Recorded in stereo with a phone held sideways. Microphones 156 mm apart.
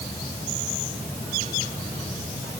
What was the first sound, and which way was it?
Only background noise.